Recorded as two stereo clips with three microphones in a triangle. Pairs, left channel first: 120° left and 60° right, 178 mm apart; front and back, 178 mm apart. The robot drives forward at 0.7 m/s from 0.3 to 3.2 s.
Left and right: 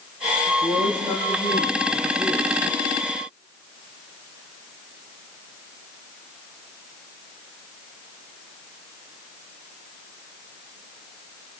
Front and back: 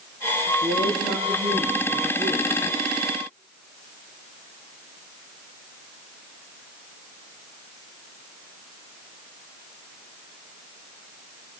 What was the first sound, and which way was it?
A woman speaking, 165° left.